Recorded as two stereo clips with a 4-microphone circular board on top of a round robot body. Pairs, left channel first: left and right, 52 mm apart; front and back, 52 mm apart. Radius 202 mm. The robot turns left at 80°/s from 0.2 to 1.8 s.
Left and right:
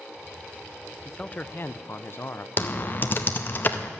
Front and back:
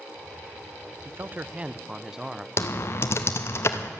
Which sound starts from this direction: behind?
A man speaking, at 1.1 s.